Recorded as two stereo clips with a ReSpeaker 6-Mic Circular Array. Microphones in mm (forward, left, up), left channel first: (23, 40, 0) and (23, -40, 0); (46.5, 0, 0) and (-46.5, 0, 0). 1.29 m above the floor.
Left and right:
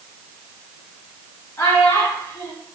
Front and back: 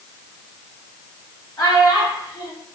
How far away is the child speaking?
About 1.4 m.